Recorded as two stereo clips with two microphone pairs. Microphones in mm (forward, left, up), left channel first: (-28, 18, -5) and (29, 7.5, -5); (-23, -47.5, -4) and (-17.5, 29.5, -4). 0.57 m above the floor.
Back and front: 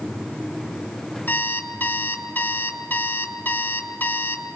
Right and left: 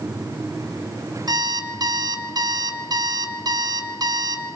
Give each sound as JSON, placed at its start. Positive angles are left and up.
{"t": 1.3, "sound": "an alarm clock", "azimuth_deg": 115, "distance_m": 2.5}